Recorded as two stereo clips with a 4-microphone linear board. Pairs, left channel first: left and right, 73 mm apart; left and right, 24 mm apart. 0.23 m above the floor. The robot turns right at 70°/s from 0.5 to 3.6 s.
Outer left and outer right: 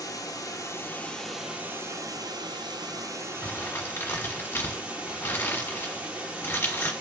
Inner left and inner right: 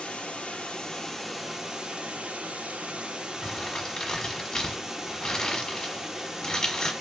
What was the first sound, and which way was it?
Running water, 120° left.